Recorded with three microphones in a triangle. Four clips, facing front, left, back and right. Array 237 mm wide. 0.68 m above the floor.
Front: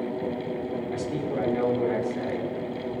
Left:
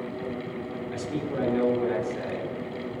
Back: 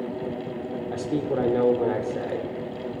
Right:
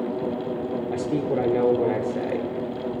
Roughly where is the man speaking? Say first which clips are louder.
Right 6 dB, back 6 dB; behind right.